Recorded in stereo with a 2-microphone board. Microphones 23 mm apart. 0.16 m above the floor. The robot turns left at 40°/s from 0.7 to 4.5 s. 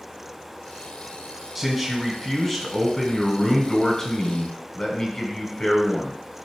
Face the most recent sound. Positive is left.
turn(degrees=20)  # may be behind; listen again after turning